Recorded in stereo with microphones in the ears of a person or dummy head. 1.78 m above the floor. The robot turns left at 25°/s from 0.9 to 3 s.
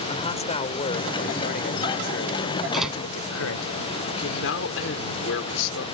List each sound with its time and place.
0.1 s a man speaking: 150° left; by 3.7 s 95° left
2.7 s a door slam: centre (ahead or behind); by 3.0 s 5° right (ahead or behind)
4.1 s a man speaking: 75° left (ahead or behind)